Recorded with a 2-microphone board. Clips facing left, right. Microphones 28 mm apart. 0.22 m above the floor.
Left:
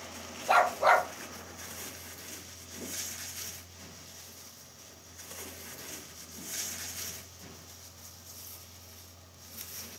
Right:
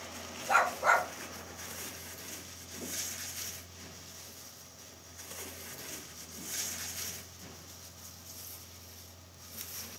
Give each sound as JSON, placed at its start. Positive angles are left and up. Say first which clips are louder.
{"t": 0.5, "sound": "a dog barking", "louder": "left 3 dB", "side_deg": 45, "distance_m": 1.5}